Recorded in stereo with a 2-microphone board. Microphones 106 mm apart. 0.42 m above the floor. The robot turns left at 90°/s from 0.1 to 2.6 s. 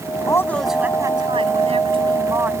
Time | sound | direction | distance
0.3 | a woman speaking | 35° left | ?